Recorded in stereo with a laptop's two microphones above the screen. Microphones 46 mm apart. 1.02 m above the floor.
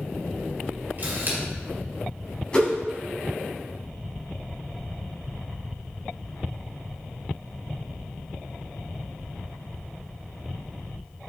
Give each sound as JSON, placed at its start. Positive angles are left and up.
{"t": 1.0, "sound": "a camera shutter", "side_deg": -40, "distance_m": 2.5}
{"t": 2.5, "sound": "a whoosh", "side_deg": 25, "distance_m": 2.5}